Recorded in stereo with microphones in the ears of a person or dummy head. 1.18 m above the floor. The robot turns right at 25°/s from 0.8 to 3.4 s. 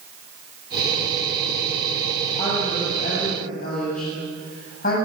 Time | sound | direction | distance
2.4 | a woman speaking | 25° left (ahead or behind) | 8.5 m